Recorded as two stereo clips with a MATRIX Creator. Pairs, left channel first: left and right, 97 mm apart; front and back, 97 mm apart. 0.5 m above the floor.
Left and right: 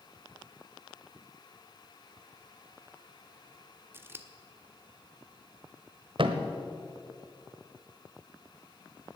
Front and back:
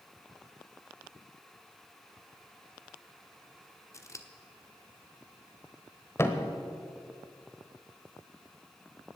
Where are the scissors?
35° right, 0.9 m.